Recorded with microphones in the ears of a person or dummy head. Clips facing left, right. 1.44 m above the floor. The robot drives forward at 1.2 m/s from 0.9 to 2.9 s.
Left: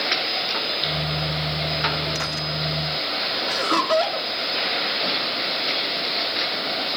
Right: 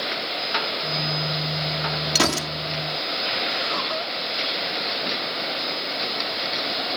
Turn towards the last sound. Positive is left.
turn(degrees=85)